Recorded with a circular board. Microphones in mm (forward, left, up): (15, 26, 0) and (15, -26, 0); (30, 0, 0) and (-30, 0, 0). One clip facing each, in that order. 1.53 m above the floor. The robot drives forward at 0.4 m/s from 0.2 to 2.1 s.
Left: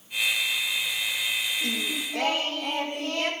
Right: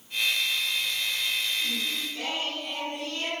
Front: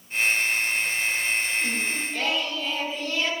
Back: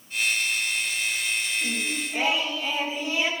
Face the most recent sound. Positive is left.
turn(degrees=105)